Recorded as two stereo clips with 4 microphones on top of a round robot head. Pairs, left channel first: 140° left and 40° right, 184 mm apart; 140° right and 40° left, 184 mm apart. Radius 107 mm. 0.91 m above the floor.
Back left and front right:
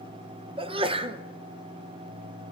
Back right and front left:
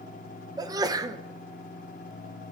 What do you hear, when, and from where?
0.6 s a sneeze: 10° right, 0.5 m